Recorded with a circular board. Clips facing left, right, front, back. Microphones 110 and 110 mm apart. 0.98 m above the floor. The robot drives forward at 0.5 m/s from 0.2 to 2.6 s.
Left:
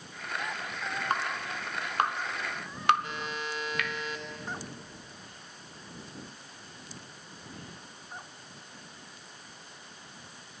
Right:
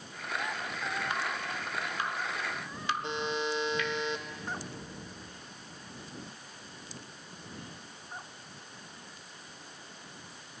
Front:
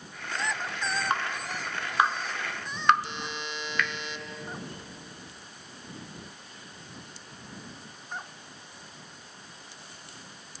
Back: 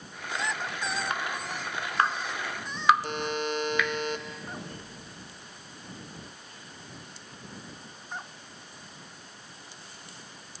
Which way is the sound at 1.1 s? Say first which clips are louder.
Left 2 dB, front 2 dB; 50° left.